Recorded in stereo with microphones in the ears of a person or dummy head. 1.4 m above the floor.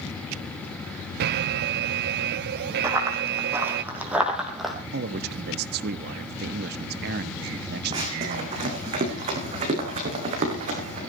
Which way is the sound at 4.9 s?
55° right (ahead or behind).